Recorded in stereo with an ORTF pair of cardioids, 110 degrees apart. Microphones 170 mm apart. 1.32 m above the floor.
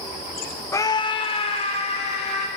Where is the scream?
15° left, 0.6 m; by 2.5 s 35° left, 3 m.